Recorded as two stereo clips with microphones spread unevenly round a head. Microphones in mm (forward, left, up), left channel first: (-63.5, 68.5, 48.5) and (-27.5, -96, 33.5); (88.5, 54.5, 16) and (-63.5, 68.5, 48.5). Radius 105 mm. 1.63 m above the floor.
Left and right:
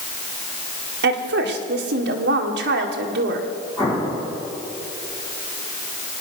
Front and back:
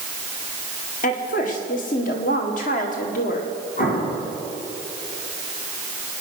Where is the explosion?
25° left, 5.5 m.